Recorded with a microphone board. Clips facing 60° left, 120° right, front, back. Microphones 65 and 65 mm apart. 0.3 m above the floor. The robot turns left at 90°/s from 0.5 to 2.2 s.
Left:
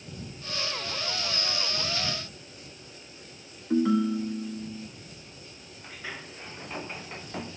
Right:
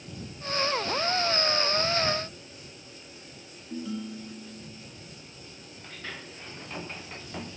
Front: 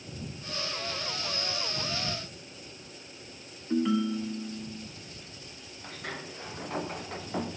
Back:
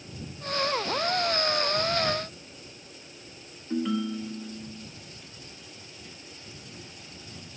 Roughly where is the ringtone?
Left.